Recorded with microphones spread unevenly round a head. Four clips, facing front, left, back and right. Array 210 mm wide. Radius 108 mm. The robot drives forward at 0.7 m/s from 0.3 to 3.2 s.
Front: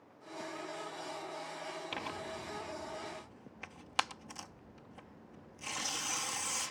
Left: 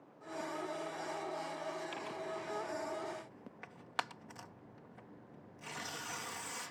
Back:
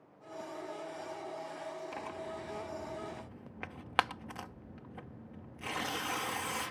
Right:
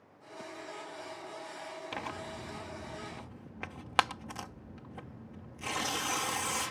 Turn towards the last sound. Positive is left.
turn(degrees=-115)